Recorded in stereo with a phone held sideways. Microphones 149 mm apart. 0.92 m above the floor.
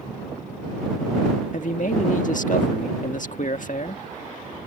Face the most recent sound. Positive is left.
turn(degrees=60)  # may be behind; listen again after turning